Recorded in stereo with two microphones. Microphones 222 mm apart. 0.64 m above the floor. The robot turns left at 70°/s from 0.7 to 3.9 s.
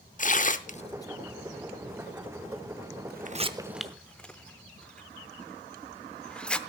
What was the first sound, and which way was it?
Tearing paper, 40° left (ahead or behind).